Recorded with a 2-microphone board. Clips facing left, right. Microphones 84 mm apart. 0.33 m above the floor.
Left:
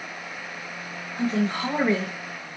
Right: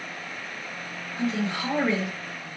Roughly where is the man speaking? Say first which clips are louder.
Left 3 dB; left.